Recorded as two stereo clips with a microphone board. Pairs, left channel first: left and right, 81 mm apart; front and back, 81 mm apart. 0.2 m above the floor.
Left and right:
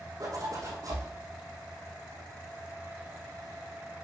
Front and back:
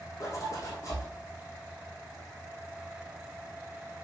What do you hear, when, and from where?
0.2 s a zipper: 45° right, 3.5 m